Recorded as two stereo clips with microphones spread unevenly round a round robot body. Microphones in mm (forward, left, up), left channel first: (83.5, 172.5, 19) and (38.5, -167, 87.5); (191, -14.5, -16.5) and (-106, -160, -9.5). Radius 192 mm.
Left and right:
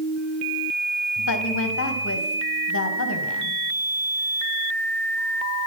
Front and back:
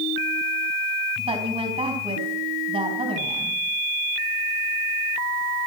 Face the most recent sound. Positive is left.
turn(degrees=130)